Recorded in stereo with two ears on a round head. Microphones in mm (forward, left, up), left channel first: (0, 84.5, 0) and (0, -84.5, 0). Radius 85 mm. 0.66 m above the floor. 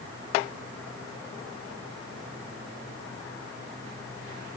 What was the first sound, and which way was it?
Only background noise.